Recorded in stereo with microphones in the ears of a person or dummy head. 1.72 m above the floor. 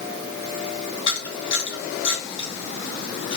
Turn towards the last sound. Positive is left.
turn(degrees=30)  # may be behind; listen again after turning